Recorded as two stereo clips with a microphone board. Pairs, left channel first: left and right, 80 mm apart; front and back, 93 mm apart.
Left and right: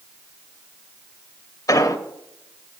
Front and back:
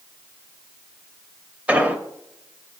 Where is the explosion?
110° left, 1.1 m.